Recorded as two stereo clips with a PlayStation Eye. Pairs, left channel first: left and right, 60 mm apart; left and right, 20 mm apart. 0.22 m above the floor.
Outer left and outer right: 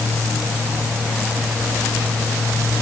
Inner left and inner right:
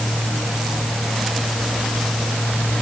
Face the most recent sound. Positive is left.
No sound to turn to.